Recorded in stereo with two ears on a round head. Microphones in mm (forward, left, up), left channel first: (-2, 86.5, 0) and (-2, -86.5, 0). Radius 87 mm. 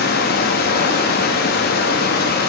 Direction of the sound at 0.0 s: 50° left (ahead or behind).